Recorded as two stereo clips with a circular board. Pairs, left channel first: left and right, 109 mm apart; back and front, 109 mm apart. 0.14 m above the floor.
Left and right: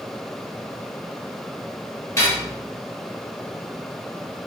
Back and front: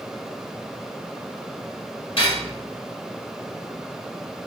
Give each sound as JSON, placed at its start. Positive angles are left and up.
{"t": 2.2, "sound": "cutlery clinking", "azimuth_deg": 150, "distance_m": 1.9}